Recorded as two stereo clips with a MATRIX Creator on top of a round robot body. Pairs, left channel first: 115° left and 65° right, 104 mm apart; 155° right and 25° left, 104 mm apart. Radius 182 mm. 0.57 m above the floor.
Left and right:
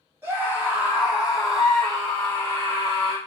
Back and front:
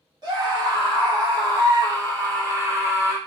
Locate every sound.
0.2 s a scream: 5° right, 1.8 m; by 3.2 s 75° left, 1.5 m